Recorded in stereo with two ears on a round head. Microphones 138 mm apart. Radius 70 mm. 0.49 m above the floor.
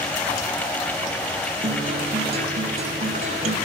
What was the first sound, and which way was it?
A guitar, 45° right (ahead or behind).